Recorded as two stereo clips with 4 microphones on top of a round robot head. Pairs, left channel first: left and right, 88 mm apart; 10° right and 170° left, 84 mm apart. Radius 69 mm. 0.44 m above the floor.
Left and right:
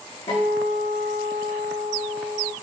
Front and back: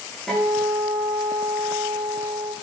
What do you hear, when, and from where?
0.3 s a guitar: 80° left, 9.5 m